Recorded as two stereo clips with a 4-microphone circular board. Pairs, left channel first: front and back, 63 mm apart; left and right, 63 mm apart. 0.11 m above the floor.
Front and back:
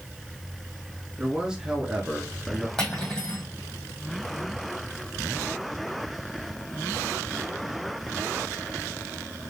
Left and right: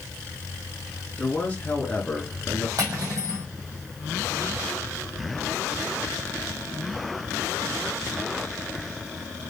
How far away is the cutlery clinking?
About 2 m.